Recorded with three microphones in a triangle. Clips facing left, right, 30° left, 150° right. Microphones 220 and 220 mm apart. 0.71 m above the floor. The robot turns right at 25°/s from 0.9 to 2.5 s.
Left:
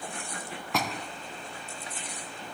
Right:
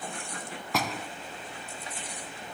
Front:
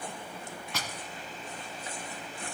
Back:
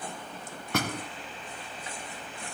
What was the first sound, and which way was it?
A door slam, straight behind.